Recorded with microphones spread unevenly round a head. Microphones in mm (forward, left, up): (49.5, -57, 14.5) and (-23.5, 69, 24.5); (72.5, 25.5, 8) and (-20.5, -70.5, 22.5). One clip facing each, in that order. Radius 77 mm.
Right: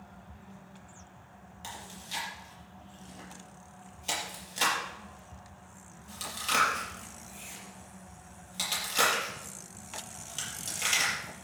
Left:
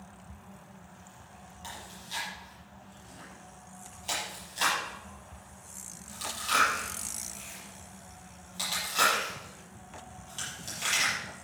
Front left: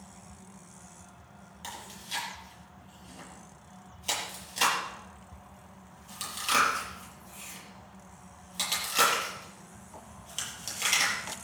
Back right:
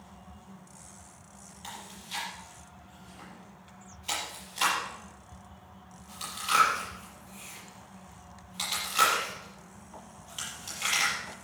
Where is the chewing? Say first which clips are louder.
Right 1 dB, front left 1 dB; 5° left, 6 m.